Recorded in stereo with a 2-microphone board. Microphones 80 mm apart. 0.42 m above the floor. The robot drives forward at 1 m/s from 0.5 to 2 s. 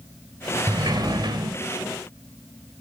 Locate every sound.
0.7 s a sliding door: 55° right (ahead or behind), 1.7 m